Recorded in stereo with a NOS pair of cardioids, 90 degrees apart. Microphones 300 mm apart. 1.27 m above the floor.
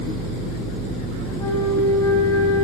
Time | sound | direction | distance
1.4 | a flute | 10° left | 7 m